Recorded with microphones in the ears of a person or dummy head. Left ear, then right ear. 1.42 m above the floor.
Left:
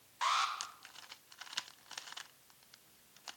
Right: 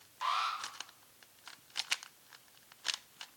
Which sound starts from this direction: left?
An alarm, at 0.2 s.